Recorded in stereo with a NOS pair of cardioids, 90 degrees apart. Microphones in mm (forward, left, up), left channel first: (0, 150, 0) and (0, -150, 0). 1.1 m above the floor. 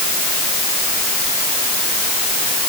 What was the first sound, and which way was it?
Only background noise.